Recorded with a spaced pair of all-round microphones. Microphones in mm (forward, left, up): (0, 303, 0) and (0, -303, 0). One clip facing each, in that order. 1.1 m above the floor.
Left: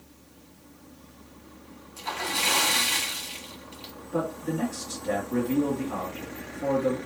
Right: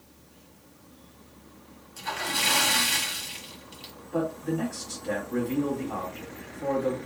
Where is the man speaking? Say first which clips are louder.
Right 1 dB; 30° left (ahead or behind), 2.5 m.